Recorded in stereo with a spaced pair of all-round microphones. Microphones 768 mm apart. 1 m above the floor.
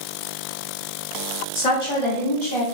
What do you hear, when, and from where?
1.6 s a woman speaking: 45° left (ahead or behind), 1.5 m; by 2.6 s 20° left (ahead or behind), 1.3 m